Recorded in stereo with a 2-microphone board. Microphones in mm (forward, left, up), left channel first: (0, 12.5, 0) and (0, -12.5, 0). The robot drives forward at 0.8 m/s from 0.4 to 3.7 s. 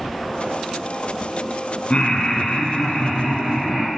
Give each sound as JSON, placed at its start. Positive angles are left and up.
{"t": 1.9, "sound": "laughter", "side_deg": 50, "distance_m": 1.4}